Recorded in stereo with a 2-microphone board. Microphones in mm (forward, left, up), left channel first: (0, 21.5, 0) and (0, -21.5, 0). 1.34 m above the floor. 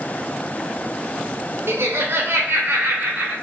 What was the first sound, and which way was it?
Laughter, 60° right (ahead or behind).